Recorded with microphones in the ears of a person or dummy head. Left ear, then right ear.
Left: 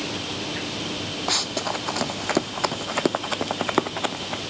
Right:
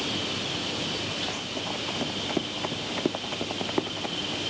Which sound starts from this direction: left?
Running footsteps, at 1.3 s.